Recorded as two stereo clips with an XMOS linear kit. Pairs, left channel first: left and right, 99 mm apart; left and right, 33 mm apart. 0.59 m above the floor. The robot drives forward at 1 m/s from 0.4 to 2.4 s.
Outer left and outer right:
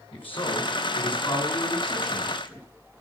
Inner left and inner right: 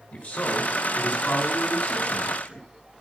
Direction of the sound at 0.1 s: 60° left (ahead or behind).